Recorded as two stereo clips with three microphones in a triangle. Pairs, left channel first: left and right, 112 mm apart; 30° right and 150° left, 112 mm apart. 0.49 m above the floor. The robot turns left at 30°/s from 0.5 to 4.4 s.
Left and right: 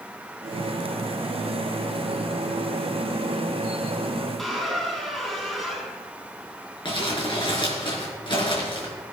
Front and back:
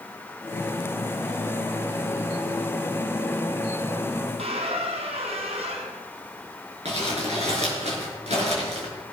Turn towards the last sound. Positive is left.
turn(degrees=135)